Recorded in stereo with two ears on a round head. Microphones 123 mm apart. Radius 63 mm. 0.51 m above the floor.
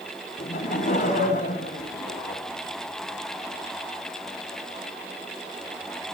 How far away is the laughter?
About 3 m.